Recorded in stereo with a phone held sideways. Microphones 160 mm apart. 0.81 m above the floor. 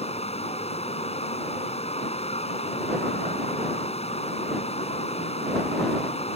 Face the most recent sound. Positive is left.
turn(degrees=40)  # may be behind; listen again after turning